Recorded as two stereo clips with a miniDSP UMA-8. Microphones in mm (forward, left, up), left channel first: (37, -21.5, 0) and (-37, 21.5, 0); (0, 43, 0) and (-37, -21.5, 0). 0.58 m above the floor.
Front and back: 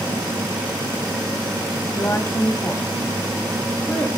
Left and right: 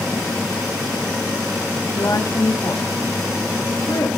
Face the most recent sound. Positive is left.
turn(degrees=40)